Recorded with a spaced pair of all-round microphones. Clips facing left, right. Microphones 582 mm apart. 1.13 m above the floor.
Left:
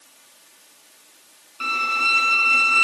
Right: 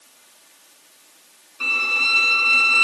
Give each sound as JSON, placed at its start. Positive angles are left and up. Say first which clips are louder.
{"t": 1.6, "sound": "a violin", "louder": "left 1 dB", "side_deg": 10, "distance_m": 0.8}